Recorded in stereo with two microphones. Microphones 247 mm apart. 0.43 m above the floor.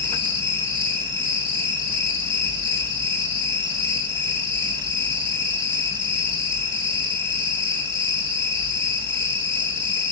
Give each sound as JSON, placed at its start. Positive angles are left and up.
{"t": 0.0, "sound": "an insect", "side_deg": -20, "distance_m": 6.0}